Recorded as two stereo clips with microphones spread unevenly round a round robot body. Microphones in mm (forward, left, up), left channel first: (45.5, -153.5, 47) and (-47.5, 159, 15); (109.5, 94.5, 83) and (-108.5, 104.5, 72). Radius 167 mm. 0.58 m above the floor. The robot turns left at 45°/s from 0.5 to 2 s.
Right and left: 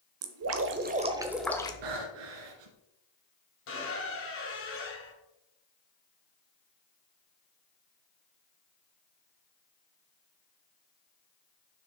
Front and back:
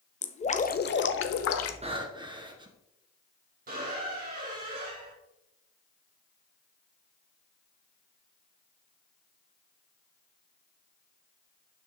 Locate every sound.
0.2 s dripping: 60° left, 0.9 m; by 1.7 s 5° left, 0.9 m
1.8 s breathing: 115° left, 1.9 m; by 2.8 s 110° left, 1.9 m
3.7 s a squeak: 125° right, 3 m